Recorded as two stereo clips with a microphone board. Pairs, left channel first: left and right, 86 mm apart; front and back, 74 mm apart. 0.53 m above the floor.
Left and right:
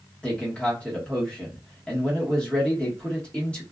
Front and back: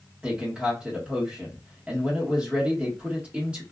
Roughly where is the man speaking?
Behind left.